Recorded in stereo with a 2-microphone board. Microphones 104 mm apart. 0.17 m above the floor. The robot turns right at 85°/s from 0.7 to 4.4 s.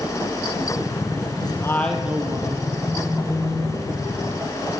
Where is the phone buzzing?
20° right, 3.5 m; by 3.8 s 60° left, 3.5 m.